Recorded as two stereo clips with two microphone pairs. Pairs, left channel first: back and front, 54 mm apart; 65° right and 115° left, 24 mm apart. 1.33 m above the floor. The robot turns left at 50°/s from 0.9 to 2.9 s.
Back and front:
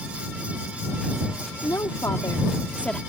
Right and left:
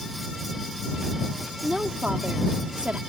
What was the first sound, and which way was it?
A woman speaking, 175° left.